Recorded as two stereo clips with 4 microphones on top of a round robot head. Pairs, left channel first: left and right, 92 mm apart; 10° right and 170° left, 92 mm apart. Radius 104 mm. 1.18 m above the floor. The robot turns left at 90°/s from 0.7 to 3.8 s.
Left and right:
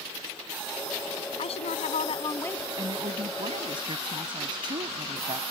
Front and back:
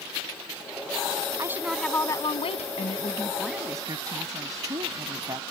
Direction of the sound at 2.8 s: 35° right.